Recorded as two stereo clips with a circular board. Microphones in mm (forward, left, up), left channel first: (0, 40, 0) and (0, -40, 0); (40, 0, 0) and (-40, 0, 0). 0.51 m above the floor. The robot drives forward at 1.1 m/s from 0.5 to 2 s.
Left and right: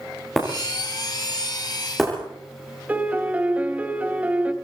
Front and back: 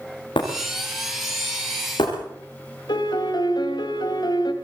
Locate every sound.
0.4 s breaking glass: straight ahead, 8.5 m
2.9 s a piano: 20° right, 2 m